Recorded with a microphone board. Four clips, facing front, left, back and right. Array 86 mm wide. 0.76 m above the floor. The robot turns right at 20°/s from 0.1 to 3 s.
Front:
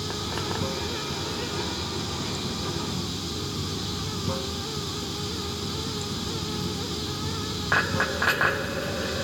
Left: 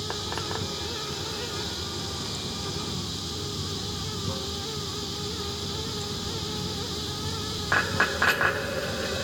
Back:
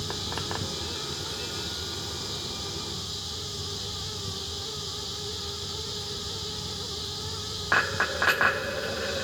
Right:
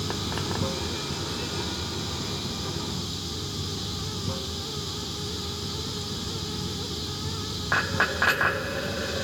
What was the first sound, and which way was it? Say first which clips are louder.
Running water: right 2 dB, front 4 dB; 60° right.